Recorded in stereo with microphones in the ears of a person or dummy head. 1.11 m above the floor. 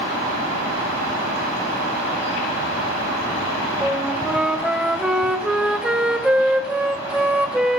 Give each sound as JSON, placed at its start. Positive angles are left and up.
{"t": 3.8, "sound": "a flute", "side_deg": -5, "distance_m": 2.0}